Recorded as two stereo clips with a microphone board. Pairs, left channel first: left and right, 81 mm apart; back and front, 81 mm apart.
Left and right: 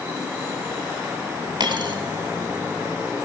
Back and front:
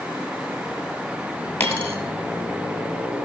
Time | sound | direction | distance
1.6 | a dropped coin | 120° right | 1.6 m